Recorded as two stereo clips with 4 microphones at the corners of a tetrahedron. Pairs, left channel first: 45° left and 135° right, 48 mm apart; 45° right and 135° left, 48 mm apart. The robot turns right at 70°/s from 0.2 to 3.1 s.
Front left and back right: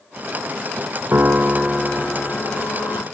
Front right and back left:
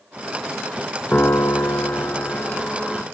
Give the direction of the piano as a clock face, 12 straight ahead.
3 o'clock.